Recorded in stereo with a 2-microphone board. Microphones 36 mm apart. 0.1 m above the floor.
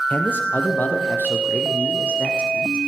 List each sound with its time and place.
0.1 s a man speaking: 65° left (ahead or behind), 3 m; by 2.8 s 45° left (ahead or behind), 5.5 m